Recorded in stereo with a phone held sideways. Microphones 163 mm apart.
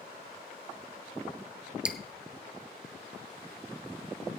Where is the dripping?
5° right (ahead or behind), 0.9 m.